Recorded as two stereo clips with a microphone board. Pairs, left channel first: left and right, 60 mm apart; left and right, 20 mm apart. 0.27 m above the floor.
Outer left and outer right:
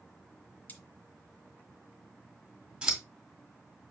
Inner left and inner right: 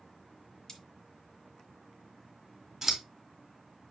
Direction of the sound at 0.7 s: 30° left (ahead or behind).